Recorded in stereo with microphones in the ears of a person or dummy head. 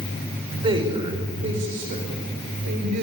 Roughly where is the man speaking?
Right.